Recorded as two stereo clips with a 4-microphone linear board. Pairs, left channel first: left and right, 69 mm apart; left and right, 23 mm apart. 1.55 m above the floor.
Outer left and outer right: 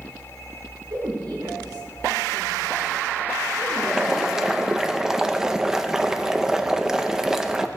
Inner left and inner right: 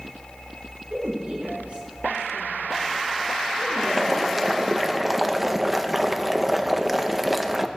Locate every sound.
0.9 s a woman speaking: 90° right, 7 m
3.8 s boiling: 5° right (ahead or behind), 0.8 m